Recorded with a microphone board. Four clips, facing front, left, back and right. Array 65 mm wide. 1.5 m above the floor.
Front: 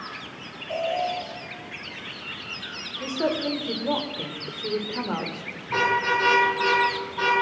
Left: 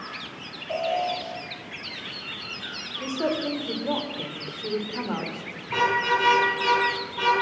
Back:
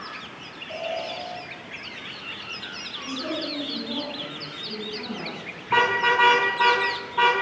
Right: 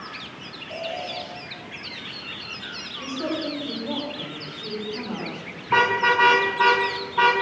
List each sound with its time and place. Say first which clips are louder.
0.7 s an alarm: left 6 dB, front 5 dB; 75° left, 7 m
3.0 s a woman speaking: left 2 dB, front 5 dB; 40° left, 4.5 m
5.7 s a car horn: right 4 dB, back 2 dB; 110° right, 7 m